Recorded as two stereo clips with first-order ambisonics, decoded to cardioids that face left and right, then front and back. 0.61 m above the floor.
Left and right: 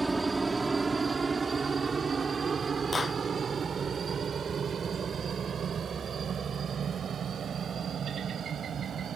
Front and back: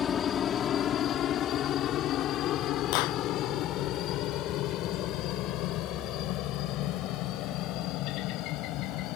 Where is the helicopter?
15° right; by 9.2 s 25° right.